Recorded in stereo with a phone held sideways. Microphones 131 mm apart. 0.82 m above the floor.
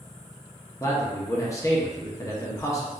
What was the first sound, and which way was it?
A man speaking, 25° left (ahead or behind).